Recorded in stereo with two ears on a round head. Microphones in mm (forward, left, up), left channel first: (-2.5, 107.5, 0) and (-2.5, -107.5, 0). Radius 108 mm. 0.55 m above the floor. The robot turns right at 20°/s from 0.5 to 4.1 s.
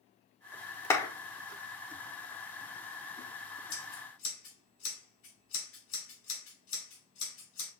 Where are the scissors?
70° left (ahead or behind), 4 m; by 7.7 s 60° left (ahead or behind), 4 m.